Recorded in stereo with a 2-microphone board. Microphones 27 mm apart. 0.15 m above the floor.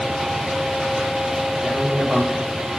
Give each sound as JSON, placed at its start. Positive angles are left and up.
{"t": 1.6, "sound": "a man speaking", "side_deg": -25, "distance_m": 4.5}